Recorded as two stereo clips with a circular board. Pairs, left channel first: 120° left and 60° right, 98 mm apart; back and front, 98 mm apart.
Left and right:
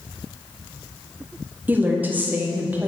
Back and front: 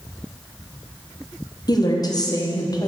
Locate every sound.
1.7 s a woman speaking: 130° right, 0.9 m